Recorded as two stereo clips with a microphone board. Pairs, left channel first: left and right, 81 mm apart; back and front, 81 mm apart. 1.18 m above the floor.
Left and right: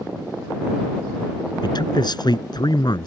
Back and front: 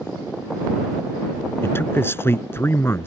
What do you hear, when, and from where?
1.6 s a man speaking: 120° left